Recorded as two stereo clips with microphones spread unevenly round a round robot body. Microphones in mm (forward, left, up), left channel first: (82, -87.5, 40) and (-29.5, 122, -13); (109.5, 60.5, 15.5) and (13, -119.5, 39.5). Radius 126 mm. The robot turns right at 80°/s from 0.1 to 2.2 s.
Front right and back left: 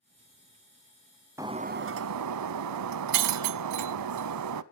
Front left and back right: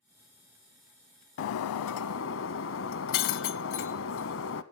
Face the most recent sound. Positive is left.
turn(degrees=105)